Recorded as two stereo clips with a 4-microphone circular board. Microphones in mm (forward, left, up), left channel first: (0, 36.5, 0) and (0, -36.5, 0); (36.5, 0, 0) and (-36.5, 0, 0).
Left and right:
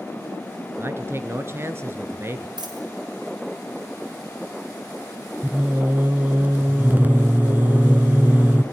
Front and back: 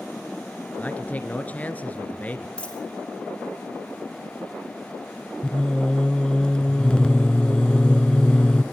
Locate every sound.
0.8 s a man speaking: 55° right, 1.9 m
2.6 s a dropped coin: 75° right, 4 m
5.4 s singing: 60° right, 0.9 m